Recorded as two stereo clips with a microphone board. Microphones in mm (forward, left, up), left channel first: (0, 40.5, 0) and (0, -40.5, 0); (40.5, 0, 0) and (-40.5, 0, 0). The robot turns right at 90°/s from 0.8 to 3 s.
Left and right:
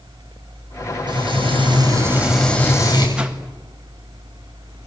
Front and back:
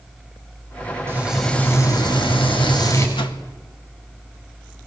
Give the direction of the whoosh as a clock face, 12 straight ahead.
12 o'clock.